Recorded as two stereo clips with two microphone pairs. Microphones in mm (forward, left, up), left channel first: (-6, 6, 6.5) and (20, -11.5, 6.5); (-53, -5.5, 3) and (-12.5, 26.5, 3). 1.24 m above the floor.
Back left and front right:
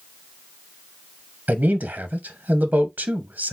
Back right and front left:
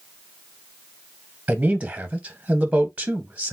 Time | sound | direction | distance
1.5 | a man speaking | 20° right | 1.1 m